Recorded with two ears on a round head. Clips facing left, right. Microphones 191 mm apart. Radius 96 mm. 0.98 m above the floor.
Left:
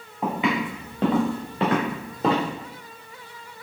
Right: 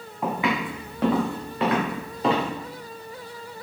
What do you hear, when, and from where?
0.2 s footsteps: 15° left (ahead or behind), 3 m; by 2.5 s 35° left (ahead or behind), 3 m